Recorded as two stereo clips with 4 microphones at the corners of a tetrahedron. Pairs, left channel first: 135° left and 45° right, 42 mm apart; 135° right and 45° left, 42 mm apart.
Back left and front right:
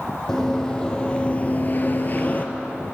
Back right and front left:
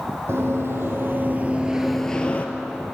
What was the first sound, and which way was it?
Running footsteps, 55° left.